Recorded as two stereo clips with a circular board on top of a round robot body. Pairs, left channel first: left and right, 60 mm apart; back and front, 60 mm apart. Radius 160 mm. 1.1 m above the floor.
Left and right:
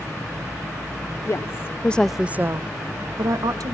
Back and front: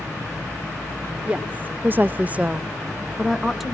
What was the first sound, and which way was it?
A woman speaking, 65° left.